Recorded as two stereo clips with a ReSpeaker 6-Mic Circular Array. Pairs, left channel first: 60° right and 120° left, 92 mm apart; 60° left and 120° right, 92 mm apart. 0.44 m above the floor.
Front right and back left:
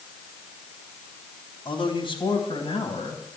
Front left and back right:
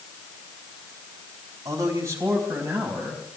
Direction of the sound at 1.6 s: 75° right.